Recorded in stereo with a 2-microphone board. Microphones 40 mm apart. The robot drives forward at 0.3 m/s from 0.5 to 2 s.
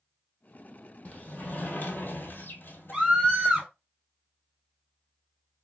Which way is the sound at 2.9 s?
5° right (ahead or behind).